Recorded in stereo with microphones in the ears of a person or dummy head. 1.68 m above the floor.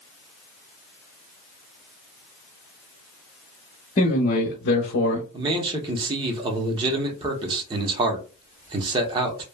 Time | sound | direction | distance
4.0 | a man speaking | 35° left (ahead or behind) | 1.0 m
5.3 | a man speaking | 25° right (ahead or behind) | 0.8 m